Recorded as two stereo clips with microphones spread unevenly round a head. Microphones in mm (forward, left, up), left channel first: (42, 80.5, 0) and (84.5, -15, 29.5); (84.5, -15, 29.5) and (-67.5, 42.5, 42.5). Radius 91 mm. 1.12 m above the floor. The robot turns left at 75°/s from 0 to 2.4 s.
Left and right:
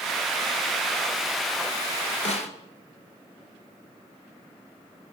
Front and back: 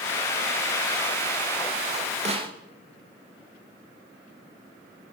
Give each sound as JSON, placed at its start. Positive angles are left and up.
{"t": 2.2, "sound": "a snare drum", "azimuth_deg": 115, "distance_m": 2.5}